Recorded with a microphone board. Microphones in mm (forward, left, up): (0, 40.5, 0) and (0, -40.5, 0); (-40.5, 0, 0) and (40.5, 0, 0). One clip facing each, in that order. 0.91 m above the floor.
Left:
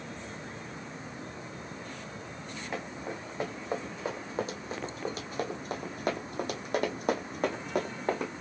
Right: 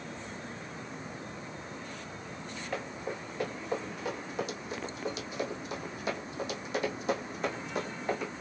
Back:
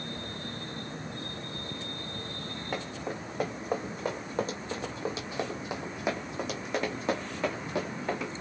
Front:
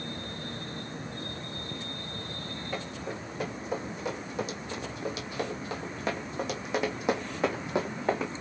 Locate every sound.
2.7 s running footsteps: 160° left, 2 m; by 8.3 s 55° left, 1.9 m